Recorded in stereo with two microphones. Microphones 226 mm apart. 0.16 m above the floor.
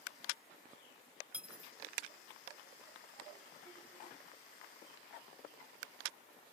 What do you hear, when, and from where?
1.3 s cutlery clinking: 5° right (ahead or behind)